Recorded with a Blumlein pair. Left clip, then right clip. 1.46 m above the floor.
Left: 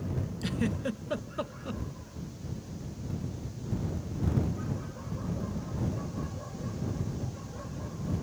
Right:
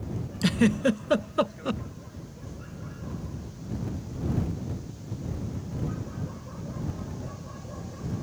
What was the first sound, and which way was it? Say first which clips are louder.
A giggle: right 10 dB; 25° right.